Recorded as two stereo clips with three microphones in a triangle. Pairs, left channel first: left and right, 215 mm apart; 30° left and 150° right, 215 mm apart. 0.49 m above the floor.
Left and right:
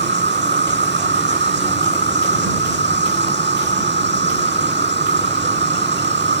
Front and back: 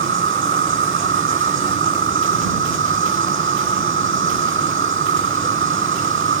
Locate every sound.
0.0 s an insect: 125° right